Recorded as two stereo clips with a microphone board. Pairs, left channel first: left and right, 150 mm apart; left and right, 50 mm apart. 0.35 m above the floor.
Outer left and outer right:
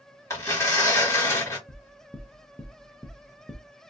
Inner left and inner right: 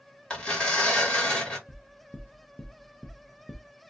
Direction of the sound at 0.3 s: 20° left (ahead or behind).